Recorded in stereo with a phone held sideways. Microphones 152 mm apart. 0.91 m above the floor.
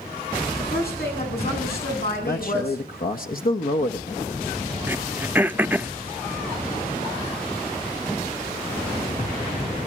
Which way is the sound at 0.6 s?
75° left (ahead or behind).